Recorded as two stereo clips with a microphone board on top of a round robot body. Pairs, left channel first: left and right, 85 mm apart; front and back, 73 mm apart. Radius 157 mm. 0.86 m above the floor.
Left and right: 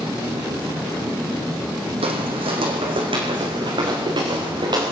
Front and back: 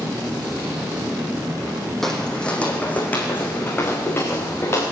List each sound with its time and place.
2.0 s footsteps: 85° right, 2.5 m; by 4.8 s 55° right, 6.5 m